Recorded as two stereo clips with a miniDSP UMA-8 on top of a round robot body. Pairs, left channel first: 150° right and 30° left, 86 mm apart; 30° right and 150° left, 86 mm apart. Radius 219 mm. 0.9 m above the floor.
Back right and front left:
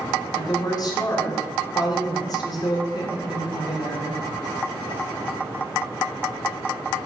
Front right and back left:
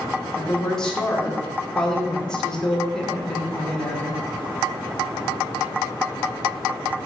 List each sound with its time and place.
0.3 s a woman speaking: 110° right, 2.5 m